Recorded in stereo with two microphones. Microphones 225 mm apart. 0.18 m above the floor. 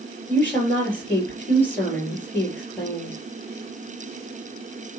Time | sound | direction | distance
0.3 | a woman speaking | 5° left (ahead or behind) | 4.5 m